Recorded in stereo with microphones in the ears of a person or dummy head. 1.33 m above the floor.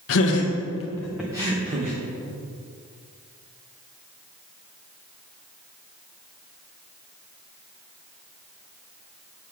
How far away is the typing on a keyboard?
I don't hear typing on a keyboard.